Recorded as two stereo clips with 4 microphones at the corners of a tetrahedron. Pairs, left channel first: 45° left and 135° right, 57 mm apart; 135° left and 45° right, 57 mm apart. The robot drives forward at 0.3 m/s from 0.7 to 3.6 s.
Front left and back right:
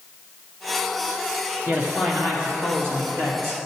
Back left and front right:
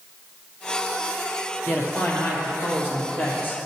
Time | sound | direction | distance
1.7 | a man speaking | 175° right | 2 m